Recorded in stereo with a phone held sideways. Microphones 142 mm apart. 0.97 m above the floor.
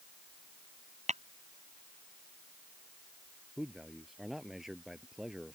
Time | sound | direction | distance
1.1 | tapping | 55° right (ahead or behind) | ?
3.6 | a man speaking | centre (ahead or behind) | ?